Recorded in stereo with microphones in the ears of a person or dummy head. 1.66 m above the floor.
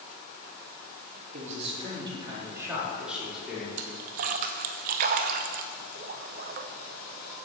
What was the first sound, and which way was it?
A man speaking, 45° right (ahead or behind).